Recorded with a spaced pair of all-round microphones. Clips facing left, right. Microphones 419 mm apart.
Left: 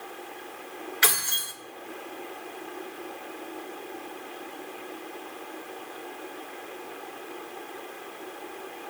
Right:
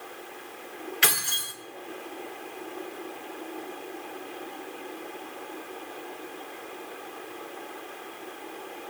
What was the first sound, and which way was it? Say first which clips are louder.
Keys jangling: even; 45° right (ahead or behind).